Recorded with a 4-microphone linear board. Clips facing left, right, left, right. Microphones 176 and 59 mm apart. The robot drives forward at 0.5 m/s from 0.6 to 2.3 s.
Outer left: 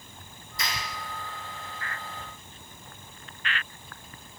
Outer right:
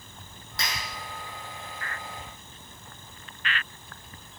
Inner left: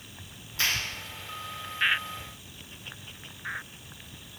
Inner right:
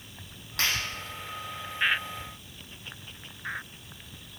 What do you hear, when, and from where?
0.6 s a clap: 75° right (ahead or behind), 5.5 m